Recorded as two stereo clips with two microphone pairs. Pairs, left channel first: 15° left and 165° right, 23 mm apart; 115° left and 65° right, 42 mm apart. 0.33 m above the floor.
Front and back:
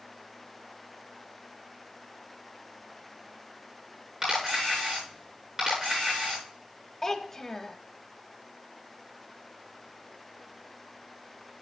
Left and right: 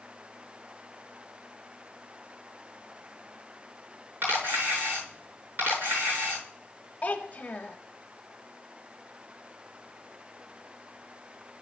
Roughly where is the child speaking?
Left.